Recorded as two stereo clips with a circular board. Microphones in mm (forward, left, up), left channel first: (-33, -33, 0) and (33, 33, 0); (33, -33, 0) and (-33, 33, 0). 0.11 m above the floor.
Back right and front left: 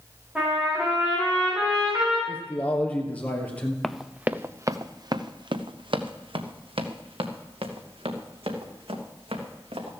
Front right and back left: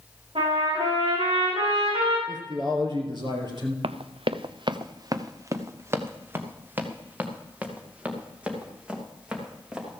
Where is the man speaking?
155° left, 3 m.